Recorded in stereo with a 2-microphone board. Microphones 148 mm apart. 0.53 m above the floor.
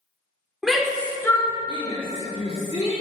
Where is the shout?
Centre (ahead or behind), 1.5 m; by 2.9 s 40° left (ahead or behind), 2 m.